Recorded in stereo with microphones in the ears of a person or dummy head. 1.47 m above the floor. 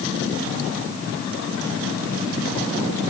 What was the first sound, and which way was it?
Only background noise.